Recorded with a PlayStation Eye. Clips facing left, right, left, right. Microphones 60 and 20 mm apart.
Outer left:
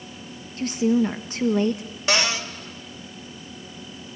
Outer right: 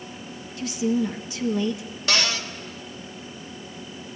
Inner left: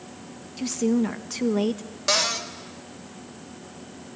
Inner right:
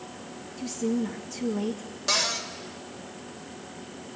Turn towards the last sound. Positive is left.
turn(degrees=25)  # may be behind; listen again after turning